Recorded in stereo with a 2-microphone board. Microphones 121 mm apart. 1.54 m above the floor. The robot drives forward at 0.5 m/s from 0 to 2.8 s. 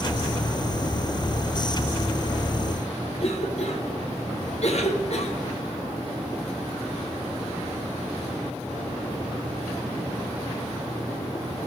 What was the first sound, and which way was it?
A cough, 60° left (ahead or behind).